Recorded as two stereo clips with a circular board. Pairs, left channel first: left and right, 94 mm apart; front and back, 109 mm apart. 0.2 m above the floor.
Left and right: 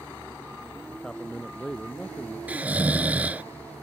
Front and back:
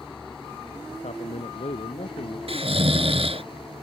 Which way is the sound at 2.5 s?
160° right.